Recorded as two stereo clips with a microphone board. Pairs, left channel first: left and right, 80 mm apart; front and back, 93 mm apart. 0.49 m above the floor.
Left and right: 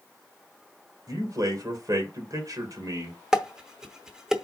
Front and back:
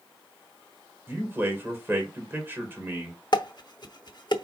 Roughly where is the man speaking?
Behind right.